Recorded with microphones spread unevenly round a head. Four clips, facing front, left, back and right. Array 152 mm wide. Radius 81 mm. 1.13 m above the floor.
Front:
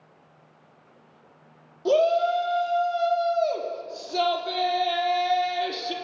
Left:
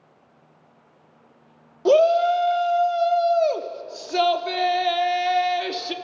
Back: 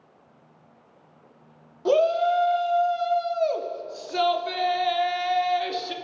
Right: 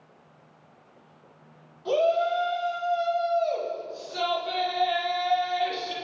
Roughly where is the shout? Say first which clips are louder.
Left 7 dB, even; left.